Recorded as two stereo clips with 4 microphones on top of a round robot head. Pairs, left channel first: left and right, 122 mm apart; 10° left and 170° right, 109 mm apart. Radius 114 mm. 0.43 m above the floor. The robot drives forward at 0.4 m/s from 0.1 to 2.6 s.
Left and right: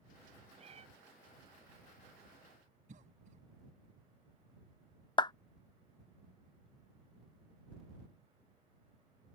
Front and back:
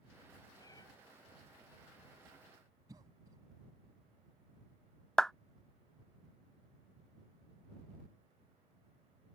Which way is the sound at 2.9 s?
110° right.